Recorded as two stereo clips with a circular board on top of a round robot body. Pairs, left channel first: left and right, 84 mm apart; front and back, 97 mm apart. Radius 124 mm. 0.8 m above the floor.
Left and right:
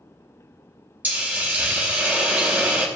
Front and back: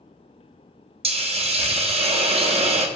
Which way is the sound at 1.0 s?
160° right.